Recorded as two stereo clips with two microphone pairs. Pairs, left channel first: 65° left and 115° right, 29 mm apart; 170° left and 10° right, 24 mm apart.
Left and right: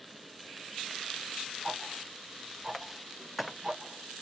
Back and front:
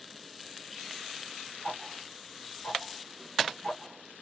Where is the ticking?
175° left, 3 m.